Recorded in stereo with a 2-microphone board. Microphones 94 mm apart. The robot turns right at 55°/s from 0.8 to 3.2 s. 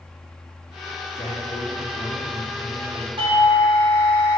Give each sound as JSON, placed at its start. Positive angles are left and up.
{"t": 1.1, "sound": "a man speaking", "azimuth_deg": 80, "distance_m": 1.7}
{"t": 3.2, "sound": "a doorbell", "side_deg": -65, "distance_m": 2.5}